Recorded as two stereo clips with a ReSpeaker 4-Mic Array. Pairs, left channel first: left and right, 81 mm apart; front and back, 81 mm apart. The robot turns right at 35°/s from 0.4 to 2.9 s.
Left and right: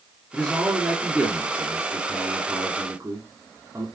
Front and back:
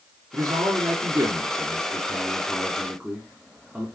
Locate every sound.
0.3 s a man speaking: 170° left, 2 m; by 3.9 s 105° right, 2 m